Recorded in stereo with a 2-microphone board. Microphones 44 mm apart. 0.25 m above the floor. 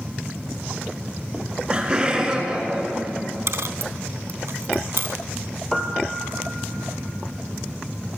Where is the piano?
10° left (ahead or behind), 2 m.